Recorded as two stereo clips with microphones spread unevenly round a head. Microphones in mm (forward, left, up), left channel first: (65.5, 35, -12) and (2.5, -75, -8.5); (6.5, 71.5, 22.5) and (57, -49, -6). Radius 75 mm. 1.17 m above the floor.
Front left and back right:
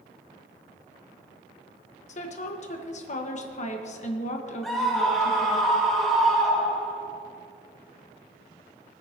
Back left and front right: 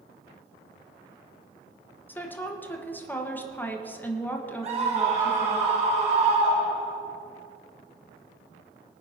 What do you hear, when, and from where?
2.1 s a woman speaking: 35° left, 1.3 m
4.6 s a scream: 30° right, 2.5 m